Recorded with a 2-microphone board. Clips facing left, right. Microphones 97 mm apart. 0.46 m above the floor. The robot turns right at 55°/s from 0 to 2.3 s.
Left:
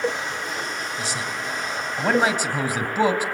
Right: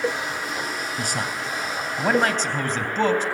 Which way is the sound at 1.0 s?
55° right (ahead or behind).